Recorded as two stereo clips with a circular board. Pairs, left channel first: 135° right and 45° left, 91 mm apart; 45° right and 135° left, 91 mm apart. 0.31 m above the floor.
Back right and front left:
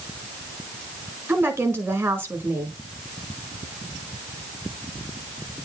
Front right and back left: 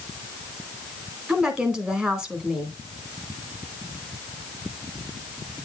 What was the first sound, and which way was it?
A woman speaking, 65° left.